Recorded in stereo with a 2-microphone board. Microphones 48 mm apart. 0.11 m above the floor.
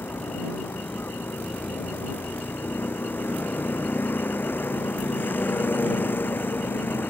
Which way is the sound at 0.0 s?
40° left (ahead or behind).